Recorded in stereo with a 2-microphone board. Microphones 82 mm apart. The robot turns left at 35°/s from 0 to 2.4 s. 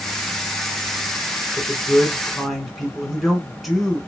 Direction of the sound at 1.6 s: 10° left (ahead or behind).